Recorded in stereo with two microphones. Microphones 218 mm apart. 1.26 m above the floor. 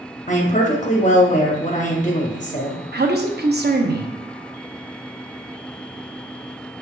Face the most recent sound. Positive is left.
turn(degrees=-50)  # may be behind; listen again after turning